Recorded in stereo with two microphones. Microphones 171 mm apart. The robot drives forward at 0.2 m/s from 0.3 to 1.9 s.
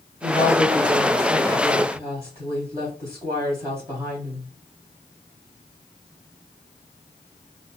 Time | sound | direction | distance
0.2 | a woman speaking | 20° right (ahead or behind) | 2.5 m